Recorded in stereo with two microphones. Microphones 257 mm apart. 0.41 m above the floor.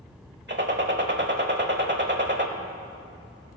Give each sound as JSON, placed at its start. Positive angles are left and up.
{"t": 0.5, "sound": "a gunshot", "side_deg": -40, "distance_m": 1.1}